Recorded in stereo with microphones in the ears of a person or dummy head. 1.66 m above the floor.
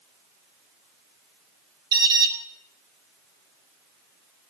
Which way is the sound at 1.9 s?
20° right (ahead or behind).